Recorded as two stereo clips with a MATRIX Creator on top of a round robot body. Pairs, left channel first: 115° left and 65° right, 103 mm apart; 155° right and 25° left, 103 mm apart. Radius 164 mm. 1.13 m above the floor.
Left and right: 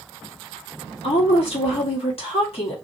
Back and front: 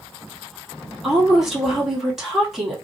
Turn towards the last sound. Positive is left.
turn(degrees=110)